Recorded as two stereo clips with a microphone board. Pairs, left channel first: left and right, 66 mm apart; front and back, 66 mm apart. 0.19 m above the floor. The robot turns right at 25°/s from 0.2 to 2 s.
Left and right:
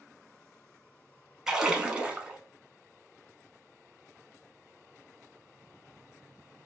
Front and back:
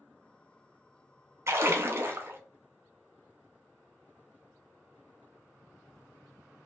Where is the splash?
165° right, 0.6 m; by 2.4 s 150° right, 0.6 m.